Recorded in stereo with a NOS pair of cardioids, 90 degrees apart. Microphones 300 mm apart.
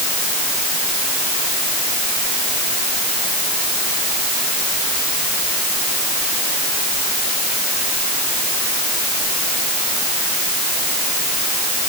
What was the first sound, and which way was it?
Only background noise.